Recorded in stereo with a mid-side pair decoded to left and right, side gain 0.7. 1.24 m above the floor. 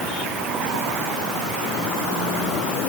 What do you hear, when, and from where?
Only background noise.